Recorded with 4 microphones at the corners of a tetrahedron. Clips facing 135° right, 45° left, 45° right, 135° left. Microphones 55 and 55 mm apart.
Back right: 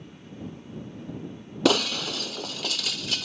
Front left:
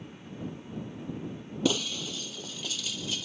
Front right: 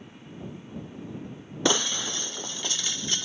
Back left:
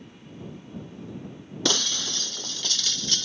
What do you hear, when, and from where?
1.6 s breaking glass: 120° right